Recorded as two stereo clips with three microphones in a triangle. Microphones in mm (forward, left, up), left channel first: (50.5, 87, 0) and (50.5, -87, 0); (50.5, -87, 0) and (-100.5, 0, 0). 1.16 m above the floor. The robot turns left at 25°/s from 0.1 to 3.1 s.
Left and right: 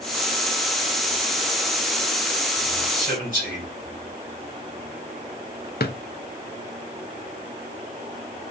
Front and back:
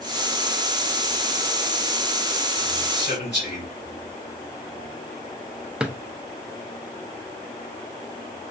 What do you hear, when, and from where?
2.9 s a man speaking: 20° right, 3 m; by 3.6 s 25° right, 3 m
5.8 s a drawer: 65° left, 0.5 m